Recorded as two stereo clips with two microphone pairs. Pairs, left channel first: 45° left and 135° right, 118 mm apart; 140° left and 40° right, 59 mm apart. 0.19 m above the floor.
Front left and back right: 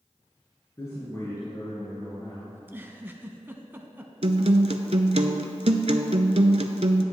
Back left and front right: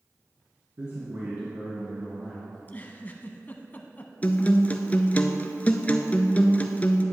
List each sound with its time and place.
0.8 s a man speaking: 10° right, 2.0 m; by 2.4 s 10° left, 3 m
2.5 s a giggle: 170° left, 0.6 m
4.2 s a guitar: 155° right, 0.6 m